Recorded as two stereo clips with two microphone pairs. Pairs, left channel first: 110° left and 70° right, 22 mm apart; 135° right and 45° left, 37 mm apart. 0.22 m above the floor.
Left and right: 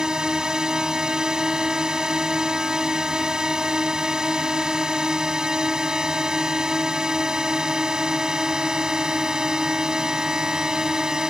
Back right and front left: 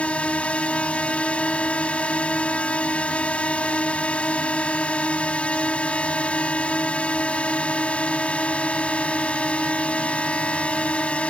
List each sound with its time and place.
0.0 s a drone: 105° right